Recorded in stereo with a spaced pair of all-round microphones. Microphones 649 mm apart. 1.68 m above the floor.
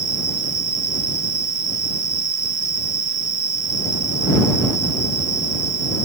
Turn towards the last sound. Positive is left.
turn(degrees=60)  # may be behind; listen again after turning